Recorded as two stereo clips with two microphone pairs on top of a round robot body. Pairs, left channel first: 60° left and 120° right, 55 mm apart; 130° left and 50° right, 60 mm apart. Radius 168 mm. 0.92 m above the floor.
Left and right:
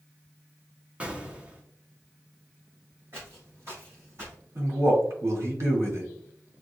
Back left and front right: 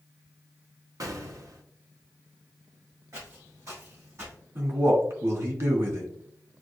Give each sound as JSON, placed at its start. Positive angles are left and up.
{"t": 1.0, "sound": "an explosion", "azimuth_deg": -50, "distance_m": 1.1}
{"t": 3.1, "sound": "footsteps", "azimuth_deg": -75, "distance_m": 2.5}
{"t": 4.5, "sound": "a man speaking", "azimuth_deg": -85, "distance_m": 2.0}